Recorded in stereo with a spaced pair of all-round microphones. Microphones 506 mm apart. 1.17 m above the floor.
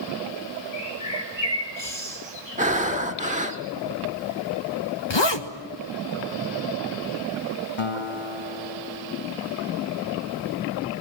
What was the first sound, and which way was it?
A bird, 55° right (ahead or behind).